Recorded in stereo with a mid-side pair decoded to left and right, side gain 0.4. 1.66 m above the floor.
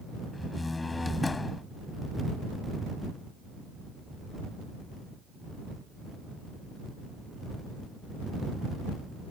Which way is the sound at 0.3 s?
25° left.